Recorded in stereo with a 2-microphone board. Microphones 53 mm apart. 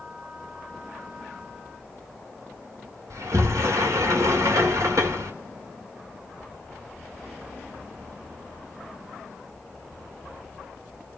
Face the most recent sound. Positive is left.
turn(degrees=-70)  # may be behind; listen again after turning